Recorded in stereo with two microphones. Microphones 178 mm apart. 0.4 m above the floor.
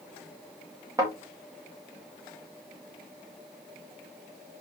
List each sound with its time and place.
1.0 s a thud: 20° right (ahead or behind), 7.5 m